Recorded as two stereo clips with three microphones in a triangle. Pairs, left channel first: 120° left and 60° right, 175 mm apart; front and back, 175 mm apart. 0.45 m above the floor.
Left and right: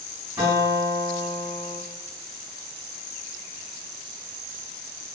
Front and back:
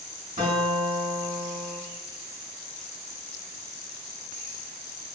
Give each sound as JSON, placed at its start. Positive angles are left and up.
{"t": 0.4, "sound": "a guitar", "azimuth_deg": -140, "distance_m": 1.2}